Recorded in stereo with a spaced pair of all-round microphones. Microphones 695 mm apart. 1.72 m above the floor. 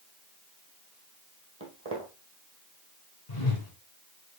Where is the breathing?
No breathing in this recording.